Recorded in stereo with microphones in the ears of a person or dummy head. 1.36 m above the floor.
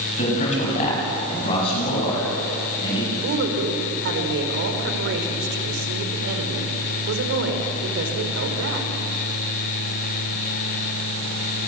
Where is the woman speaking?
65° right (ahead or behind), 4 m.